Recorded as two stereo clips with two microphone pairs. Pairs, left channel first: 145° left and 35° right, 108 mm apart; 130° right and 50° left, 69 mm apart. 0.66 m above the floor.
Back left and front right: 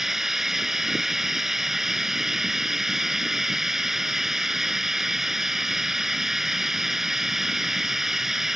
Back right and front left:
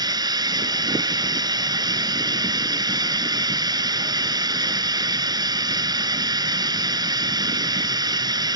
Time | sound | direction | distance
0.0 | running water | 50° left | ?